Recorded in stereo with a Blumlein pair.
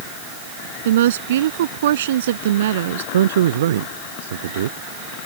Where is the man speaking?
60° right.